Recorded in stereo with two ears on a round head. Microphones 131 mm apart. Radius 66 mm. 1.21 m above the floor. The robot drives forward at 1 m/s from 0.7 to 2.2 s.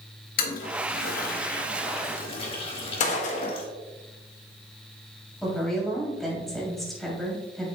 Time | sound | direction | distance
0.4 | a toilet flushing | 65° left (ahead or behind) | 1.1 m
3.0 | a gunshot | 50° left (ahead or behind) | 1.0 m
5.4 | a woman speaking | centre (ahead or behind) | 3 m